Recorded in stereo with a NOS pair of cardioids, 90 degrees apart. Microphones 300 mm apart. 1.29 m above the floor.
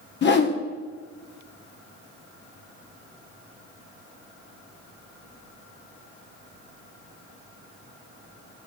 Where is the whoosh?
40° left, 1.0 m.